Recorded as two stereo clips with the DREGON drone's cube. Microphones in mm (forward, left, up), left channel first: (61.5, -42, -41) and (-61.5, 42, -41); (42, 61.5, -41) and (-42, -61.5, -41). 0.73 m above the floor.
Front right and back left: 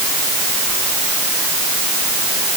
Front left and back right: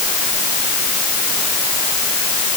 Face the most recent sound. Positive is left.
No sound to turn to.